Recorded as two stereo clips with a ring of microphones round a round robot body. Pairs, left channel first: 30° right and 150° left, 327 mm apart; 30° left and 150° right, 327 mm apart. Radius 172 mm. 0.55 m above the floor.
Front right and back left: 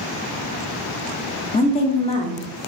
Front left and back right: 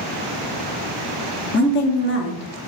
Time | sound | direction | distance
1.5 | a woman speaking | 25° left | 0.7 m